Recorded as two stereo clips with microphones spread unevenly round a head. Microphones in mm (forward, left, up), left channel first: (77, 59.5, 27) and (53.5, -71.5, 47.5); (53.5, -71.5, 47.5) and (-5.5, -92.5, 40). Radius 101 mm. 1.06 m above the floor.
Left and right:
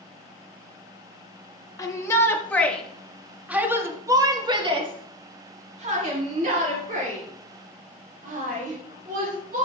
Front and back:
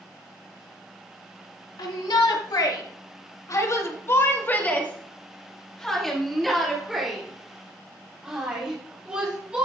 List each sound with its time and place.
1.8 s a shout: 15° left, 1.8 m; by 9.7 s 90° right, 4 m